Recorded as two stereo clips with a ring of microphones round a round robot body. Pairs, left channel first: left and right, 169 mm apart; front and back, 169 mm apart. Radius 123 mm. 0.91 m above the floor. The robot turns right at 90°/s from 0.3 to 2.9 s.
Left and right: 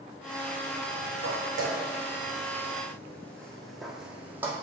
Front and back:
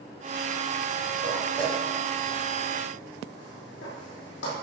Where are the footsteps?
115° right, 3.5 m; by 4.5 s 15° right, 2 m.